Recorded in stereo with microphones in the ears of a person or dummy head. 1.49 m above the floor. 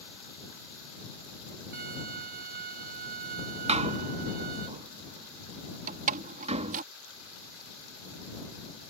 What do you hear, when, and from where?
1.7 s a violin: 55° right (ahead or behind)
3.7 s a door slam: 40° right (ahead or behind)
5.9 s a door slam: 45° right (ahead or behind)